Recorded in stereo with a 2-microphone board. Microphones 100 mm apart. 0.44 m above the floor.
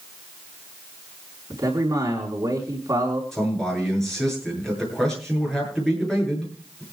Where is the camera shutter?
I don't hear a camera shutter.